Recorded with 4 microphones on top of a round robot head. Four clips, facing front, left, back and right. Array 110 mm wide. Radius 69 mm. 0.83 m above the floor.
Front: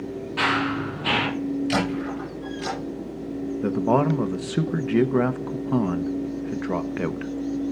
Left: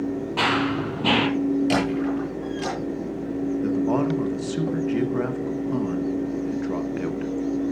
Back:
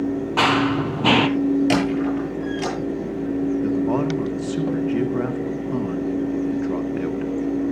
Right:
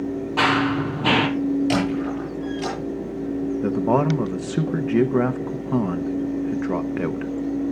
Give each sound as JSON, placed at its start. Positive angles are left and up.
{"t": 0.4, "sound": "running footsteps", "azimuth_deg": -175, "distance_m": 1.2}
{"t": 1.7, "sound": "a squeak", "azimuth_deg": 175, "distance_m": 9.5}
{"t": 3.6, "sound": "a man speaking", "azimuth_deg": -50, "distance_m": 1.1}